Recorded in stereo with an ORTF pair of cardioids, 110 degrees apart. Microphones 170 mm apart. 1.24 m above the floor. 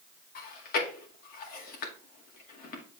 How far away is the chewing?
About 2 m.